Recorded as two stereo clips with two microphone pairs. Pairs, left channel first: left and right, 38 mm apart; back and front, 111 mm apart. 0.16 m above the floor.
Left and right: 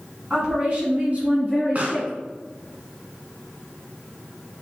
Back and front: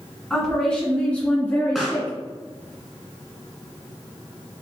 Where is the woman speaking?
100° right, 1.6 m; by 2.2 s 115° right, 2.5 m.